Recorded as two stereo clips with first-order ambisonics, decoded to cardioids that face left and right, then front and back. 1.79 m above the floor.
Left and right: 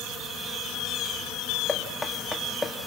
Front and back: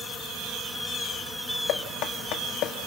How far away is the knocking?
About 1.9 m.